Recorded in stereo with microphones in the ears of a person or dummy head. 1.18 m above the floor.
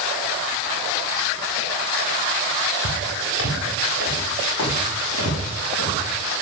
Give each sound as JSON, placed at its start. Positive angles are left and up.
{"t": 2.8, "sound": "footsteps", "side_deg": 80, "distance_m": 6.5}